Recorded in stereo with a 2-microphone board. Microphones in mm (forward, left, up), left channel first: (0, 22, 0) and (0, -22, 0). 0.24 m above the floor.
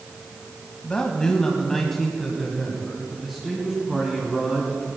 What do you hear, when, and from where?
0.8 s a man speaking: 20° left (ahead or behind), 1.8 m; by 4.9 s 20° right (ahead or behind), 3 m